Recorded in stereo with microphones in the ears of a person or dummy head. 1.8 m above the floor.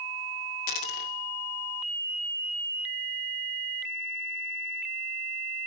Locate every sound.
0.7 s a dropped coin: 35° left (ahead or behind), 1.8 m